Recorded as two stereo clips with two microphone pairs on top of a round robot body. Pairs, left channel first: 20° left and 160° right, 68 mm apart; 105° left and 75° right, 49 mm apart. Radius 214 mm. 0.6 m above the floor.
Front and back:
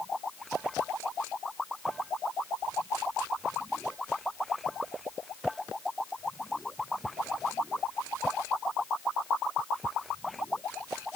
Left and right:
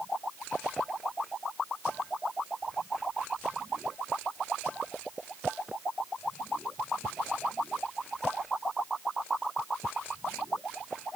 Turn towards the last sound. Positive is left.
No sound to turn to.